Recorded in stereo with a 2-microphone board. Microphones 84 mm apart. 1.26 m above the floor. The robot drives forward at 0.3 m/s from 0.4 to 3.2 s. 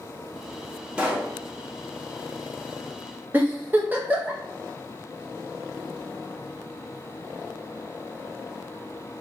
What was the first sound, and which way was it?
A pop, 15° right (ahead or behind).